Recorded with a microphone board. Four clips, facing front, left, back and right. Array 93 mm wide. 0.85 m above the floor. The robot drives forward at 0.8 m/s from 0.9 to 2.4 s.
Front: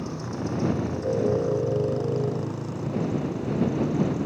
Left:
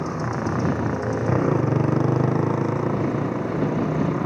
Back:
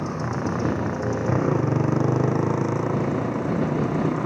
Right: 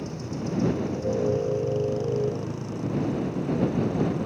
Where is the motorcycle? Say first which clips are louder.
Left 7 dB, back 4 dB; 120° left; by 4.3 s 135° left.